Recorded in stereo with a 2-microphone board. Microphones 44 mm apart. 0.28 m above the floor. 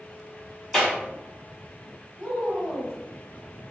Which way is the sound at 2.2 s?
20° right (ahead or behind).